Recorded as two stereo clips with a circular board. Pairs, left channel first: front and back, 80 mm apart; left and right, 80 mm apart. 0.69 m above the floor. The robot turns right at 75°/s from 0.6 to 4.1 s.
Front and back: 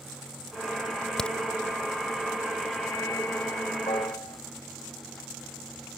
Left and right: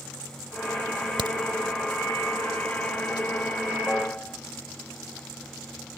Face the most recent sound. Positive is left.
turn(degrees=25)